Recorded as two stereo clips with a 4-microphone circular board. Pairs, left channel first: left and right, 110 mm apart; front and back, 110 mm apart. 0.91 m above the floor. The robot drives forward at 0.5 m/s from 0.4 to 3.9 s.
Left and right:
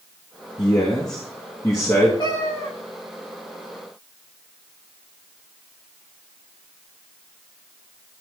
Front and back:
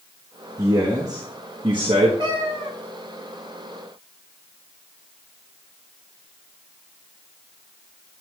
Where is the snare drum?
No snare drum in this recording.